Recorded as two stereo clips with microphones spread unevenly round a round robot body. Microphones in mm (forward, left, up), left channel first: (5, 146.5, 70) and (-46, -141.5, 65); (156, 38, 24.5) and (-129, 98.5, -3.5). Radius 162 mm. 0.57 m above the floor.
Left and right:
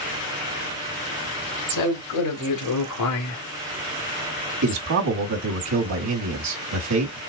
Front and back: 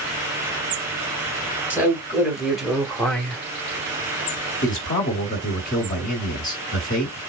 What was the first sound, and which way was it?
A man speaking, 85° left.